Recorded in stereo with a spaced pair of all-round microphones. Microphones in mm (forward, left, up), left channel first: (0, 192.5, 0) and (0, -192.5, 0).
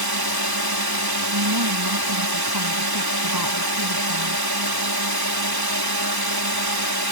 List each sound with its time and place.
0.0 s a drone: 70° right (ahead or behind)
1.3 s a woman speaking: 75° right (ahead or behind)